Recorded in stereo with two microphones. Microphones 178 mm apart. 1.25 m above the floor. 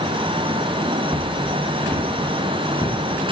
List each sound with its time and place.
1.1 s footsteps: 5° left (ahead or behind), 5.5 m; by 3.0 s 20° left (ahead or behind), 7 m